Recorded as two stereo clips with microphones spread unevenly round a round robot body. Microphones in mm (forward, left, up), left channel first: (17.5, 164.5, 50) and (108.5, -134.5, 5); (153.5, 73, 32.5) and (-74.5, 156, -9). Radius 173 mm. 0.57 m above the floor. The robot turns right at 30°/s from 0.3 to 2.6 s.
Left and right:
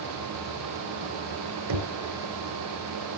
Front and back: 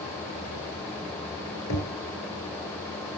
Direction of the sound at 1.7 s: 80° right.